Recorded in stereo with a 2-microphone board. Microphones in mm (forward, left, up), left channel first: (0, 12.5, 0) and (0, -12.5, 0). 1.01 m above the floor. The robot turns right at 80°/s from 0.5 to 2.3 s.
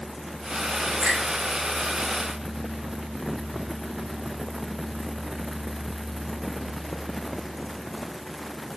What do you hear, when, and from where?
1.0 s a finger snap: 75° right (ahead or behind), 3 m; by 1.2 s 60° right (ahead or behind), 3 m